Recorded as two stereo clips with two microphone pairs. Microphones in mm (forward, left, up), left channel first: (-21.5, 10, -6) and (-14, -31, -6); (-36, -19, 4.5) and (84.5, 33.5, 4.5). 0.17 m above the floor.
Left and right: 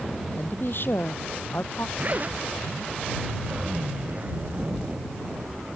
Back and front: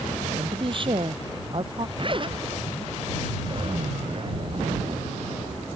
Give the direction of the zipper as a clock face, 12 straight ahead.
1 o'clock.